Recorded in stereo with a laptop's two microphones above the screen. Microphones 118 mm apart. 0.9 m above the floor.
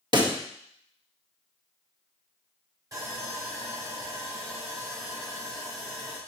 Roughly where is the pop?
Right.